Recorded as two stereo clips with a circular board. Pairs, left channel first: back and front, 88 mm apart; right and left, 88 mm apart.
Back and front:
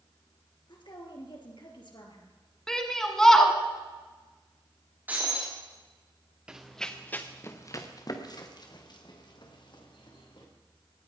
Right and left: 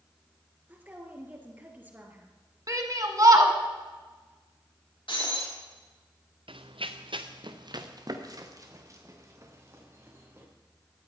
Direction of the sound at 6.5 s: 80° left.